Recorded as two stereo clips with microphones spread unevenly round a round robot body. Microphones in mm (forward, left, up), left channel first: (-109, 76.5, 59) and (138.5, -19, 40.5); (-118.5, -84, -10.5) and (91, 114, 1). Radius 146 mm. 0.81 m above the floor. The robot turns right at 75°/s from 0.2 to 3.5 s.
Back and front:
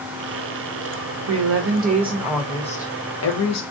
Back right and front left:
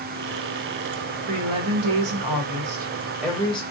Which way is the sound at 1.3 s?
15° right.